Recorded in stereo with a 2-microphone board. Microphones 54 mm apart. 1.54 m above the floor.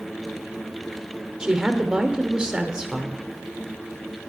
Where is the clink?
I don't hear a clink.